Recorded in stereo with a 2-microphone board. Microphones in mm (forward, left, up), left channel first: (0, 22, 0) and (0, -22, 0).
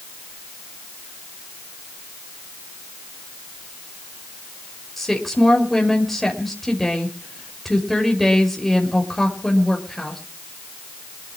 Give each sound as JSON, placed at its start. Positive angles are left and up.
{"t": 5.0, "sound": "a woman speaking", "side_deg": 5, "distance_m": 5.5}